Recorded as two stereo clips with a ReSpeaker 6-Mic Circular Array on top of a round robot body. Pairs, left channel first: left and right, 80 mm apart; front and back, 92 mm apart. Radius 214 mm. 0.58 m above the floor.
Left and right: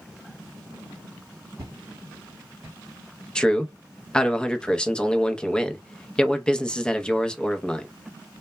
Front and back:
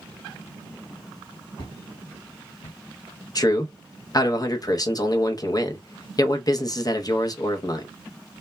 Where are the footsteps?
45° right, 0.8 m; by 2.8 s 35° right, 1.3 m.